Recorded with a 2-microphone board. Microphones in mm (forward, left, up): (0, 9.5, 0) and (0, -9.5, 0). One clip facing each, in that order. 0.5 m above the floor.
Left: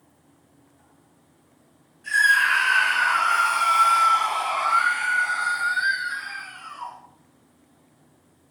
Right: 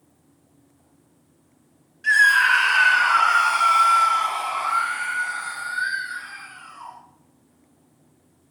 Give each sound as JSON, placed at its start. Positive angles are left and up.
{"t": 2.0, "sound": "a scream", "side_deg": -55, "distance_m": 2.0}